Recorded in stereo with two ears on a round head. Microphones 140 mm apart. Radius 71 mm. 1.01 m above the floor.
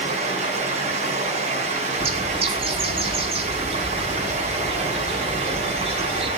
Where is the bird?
40° right (ahead or behind), 8.5 m.